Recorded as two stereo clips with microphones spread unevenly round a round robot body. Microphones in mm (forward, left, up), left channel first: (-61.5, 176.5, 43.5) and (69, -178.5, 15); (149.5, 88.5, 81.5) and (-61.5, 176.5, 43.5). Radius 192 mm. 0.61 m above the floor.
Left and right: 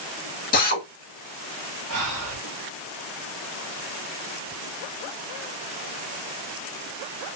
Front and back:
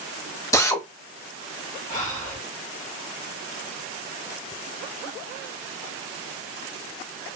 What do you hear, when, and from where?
0.5 s a drill: 60° left, 1.0 m
1.9 s breathing: 80° right, 1.1 m